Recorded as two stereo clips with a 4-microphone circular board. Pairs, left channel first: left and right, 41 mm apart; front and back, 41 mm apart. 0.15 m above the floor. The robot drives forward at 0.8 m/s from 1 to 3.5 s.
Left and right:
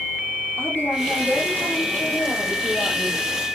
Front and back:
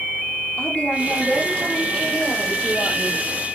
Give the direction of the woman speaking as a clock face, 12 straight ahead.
10 o'clock.